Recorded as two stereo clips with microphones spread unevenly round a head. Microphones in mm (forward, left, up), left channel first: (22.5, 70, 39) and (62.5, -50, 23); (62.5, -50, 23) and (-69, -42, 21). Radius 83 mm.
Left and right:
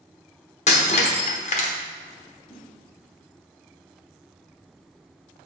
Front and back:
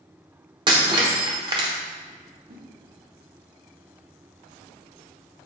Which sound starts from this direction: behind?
A whoosh, at 2.5 s.